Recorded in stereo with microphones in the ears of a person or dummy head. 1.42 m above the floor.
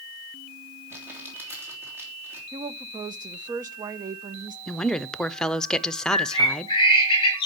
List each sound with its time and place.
0.9 s crumpling: 10° right (ahead or behind), 3 m
2.5 s a woman speaking: 20° right (ahead or behind), 0.8 m
4.7 s a woman speaking: 5° left (ahead or behind), 0.6 m
6.1 s a bird: 25° left (ahead or behind), 2.5 m